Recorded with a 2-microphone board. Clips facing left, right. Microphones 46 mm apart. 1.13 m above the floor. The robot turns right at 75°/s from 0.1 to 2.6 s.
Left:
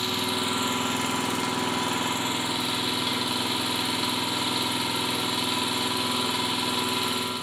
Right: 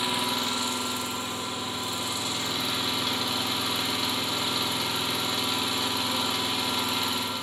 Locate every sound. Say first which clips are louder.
0.0 s an engine running: even; 15° right, 1.4 m; by 7.5 s 175° left, 1.4 m